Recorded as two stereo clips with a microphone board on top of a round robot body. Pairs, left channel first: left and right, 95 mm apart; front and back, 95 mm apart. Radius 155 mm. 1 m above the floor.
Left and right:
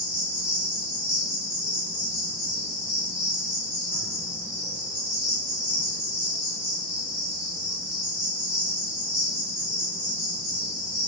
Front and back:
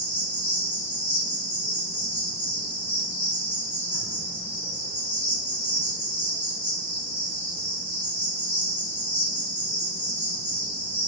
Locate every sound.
0.0 s an insect: 30° left, 1.4 m